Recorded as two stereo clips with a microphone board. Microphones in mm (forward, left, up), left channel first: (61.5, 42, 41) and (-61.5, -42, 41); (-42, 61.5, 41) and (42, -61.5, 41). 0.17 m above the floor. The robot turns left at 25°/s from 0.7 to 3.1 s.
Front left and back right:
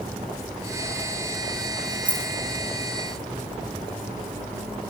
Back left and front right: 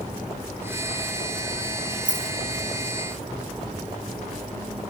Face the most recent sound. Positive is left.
turn(degrees=-115)